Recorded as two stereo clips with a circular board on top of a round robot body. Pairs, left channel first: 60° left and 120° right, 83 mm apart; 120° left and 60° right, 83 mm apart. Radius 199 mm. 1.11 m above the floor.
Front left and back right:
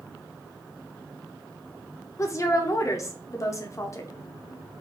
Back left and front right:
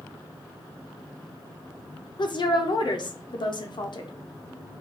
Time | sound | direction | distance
2.2 | a woman speaking | 110° left | 0.8 m